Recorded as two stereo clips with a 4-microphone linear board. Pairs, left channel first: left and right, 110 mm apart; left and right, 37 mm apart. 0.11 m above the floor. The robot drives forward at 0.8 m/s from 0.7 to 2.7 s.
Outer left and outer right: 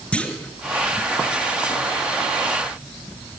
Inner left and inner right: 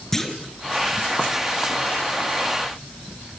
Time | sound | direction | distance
0.1 | a clunk | 10° left (ahead or behind) | 1.6 m